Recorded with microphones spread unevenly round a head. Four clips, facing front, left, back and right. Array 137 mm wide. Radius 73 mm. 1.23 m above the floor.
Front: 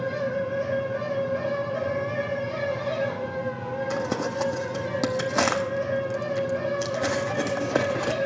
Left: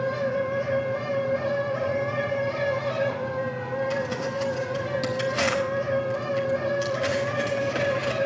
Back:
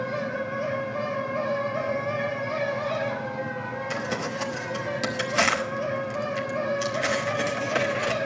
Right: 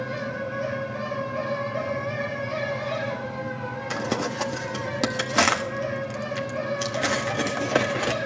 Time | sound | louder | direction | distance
0.0 | a fan | left 5 dB, front 2 dB | 40° left | 5 m
3.9 | crumpling | even, front 3 dB | 45° right | 1.0 m